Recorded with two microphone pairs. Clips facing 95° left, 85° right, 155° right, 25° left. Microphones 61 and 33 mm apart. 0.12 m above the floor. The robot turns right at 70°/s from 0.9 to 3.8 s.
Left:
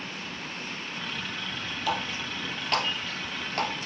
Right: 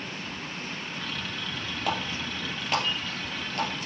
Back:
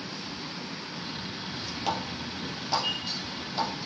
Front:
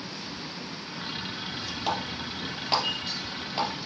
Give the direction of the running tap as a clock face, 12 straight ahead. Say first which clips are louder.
Even, front 1 dB; 2 o'clock.